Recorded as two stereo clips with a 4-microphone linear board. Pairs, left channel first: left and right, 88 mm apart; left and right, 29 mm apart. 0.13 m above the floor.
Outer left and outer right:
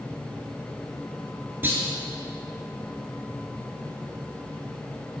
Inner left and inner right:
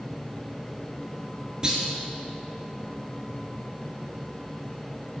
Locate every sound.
1.6 s a clunk: 25° right (ahead or behind), 1.1 m